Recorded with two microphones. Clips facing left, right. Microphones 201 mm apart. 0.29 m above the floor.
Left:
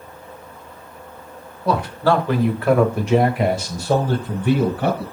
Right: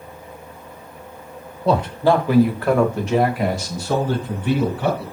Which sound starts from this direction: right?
A man speaking, at 1.6 s.